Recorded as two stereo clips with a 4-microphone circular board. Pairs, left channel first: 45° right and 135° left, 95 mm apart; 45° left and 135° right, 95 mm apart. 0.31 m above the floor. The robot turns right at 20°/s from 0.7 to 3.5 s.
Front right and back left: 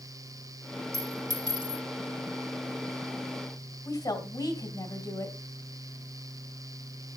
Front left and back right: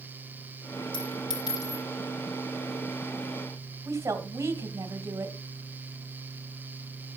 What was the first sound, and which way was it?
A clink, 80° left.